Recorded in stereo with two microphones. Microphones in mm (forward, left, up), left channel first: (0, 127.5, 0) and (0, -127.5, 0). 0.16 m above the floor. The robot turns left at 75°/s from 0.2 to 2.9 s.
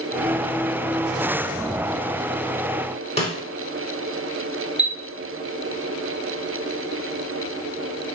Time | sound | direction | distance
3.2 | a snare drum | 25° left (ahead or behind) | 0.8 m
4.8 | a chime | 45° left (ahead or behind) | 0.5 m